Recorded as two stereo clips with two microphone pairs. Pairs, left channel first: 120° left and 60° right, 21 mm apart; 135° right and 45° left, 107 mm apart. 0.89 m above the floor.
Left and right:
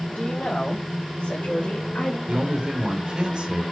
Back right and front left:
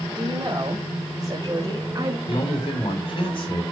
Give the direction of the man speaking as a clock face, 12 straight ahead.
3 o'clock.